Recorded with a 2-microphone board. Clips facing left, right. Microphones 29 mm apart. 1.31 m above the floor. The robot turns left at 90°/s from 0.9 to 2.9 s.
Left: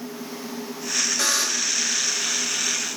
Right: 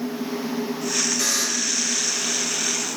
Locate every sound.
1.2 s a buzzer: 50° left, 1.9 m; by 1.8 s straight ahead, 1.9 m